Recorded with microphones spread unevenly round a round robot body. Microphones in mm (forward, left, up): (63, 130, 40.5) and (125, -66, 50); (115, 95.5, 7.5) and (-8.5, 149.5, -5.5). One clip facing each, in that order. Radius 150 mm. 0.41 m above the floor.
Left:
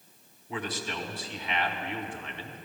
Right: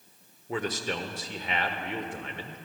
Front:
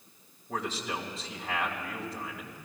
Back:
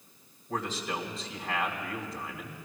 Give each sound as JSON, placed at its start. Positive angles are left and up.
{"t": 0.5, "sound": "a man speaking", "azimuth_deg": -110, "distance_m": 1.1}